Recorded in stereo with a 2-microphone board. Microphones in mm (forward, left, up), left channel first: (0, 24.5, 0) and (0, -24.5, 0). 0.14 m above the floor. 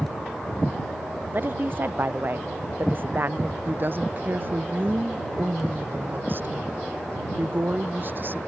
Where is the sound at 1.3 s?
40° right (ahead or behind).